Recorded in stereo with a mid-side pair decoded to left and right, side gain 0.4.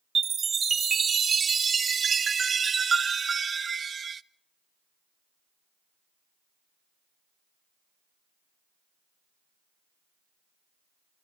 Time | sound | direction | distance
0.1 | a chime | 40° right | 0.6 m